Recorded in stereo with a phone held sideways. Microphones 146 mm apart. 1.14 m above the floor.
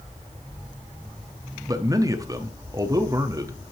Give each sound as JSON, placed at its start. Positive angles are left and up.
{"t": 1.7, "sound": "a man speaking", "side_deg": -25, "distance_m": 0.6}